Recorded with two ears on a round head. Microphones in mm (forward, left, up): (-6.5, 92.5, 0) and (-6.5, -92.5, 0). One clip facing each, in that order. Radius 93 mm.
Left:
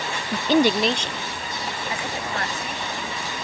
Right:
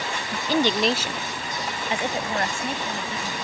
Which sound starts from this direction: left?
A woman speaking, at 0.3 s.